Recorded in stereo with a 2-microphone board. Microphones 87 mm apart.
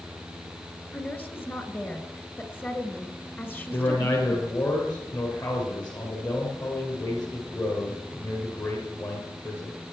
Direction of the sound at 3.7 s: 50° left (ahead or behind).